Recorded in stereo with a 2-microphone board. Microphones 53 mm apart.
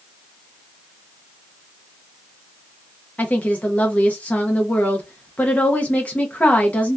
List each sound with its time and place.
3.2 s a woman speaking: 25° left (ahead or behind), 0.6 m